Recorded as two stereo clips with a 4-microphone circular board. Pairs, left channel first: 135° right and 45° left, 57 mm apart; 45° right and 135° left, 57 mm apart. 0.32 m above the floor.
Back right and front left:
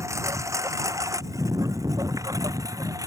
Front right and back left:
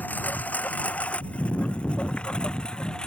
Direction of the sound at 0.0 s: 15° left.